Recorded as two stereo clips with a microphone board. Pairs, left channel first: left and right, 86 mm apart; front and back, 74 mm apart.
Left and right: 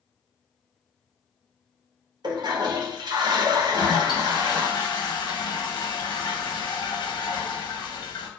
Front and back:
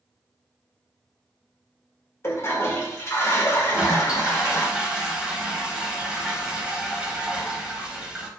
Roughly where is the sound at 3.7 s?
Left.